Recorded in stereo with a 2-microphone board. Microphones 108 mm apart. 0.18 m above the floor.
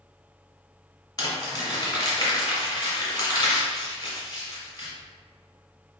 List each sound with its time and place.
1.2 s crumpling: 35° left (ahead or behind), 1.9 m